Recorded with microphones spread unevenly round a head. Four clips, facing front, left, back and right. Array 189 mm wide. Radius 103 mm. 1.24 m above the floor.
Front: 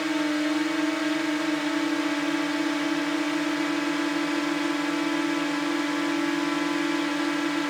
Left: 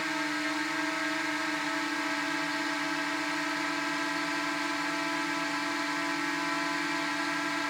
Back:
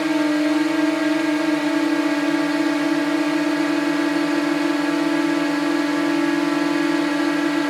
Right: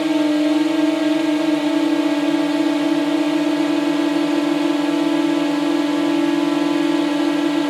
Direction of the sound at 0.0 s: 115° right.